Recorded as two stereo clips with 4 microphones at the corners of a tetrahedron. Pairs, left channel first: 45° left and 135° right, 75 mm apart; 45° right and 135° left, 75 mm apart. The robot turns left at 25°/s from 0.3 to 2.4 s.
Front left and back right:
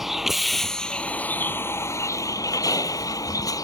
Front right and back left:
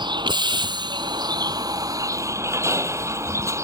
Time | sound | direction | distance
0.0 | a vehicle | 140° left | ?